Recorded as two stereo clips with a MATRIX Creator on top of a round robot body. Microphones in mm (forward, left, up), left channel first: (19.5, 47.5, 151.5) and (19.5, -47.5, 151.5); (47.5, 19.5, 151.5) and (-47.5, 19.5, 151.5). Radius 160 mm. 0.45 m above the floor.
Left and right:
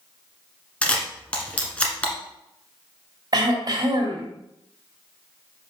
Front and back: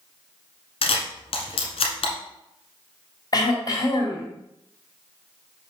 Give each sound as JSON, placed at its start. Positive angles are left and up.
{"t": 0.8, "sound": "a camera shutter", "azimuth_deg": 15, "distance_m": 1.3}
{"t": 3.3, "sound": "throat clearing", "azimuth_deg": -45, "distance_m": 1.8}